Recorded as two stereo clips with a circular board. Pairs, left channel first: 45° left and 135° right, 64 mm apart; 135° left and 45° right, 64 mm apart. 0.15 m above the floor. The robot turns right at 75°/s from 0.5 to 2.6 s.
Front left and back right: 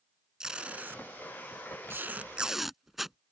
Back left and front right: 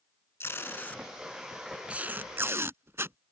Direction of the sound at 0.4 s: 150° left.